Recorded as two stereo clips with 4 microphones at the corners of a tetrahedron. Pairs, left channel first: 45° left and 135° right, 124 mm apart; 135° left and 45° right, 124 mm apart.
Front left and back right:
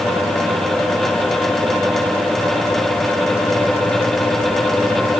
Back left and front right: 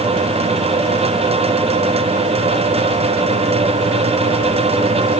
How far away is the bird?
I don't hear a bird.